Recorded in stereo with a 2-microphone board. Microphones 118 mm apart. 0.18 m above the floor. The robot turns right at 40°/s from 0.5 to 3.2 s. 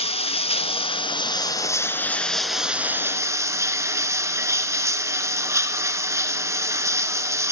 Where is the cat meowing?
No cat meowing in this recording.